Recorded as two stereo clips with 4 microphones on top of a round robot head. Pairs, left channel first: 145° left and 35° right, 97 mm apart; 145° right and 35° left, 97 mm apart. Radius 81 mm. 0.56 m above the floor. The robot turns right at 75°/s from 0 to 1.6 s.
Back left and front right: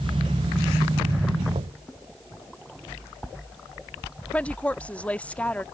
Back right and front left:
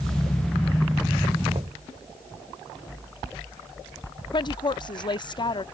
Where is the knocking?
5° right; by 1.8 s straight ahead.